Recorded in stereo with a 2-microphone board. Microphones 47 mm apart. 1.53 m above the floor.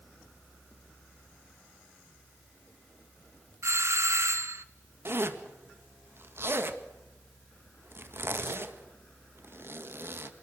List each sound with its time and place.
3.6 s a doorbell: 80° right, 1.3 m
5.0 s a zipper: 60° right (ahead or behind), 1.8 m